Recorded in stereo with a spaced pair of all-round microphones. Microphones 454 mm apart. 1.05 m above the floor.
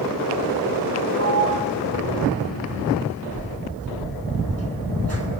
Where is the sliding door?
35° right (ahead or behind), 2.5 m.